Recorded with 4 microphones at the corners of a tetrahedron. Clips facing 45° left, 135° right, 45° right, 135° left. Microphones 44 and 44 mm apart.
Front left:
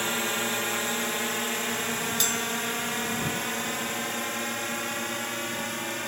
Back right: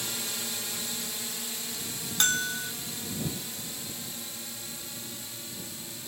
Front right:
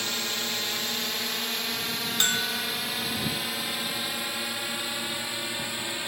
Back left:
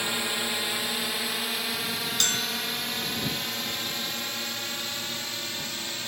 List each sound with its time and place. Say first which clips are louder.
0.0 s a drone: front left 9 dB, back left 2 dB; 65° left; by 6.1 s 30° left
2.2 s a bell: front left 1 dB, front right 4 dB; 105° right